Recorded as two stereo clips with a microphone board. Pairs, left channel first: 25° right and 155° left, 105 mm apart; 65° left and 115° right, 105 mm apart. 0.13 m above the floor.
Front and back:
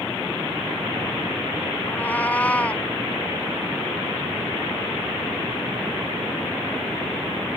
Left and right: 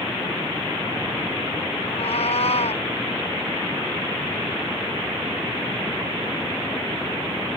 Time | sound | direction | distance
1.9 | a cat meowing | 50° left | ?